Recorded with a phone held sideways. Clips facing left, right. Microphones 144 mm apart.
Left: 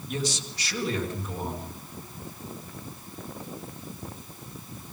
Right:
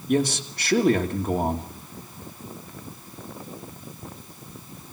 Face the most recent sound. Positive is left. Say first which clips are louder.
# right 9 dB
turn(degrees=-55)  # may be behind; listen again after turning